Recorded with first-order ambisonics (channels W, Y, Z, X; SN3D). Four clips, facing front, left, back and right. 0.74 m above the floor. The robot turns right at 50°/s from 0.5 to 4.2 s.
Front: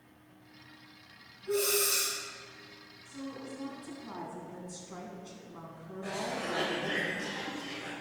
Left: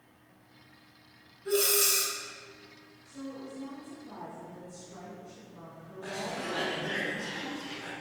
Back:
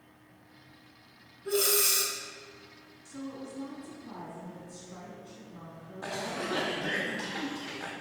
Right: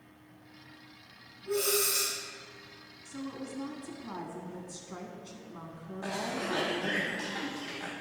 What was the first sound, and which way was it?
Breathing, 115° left.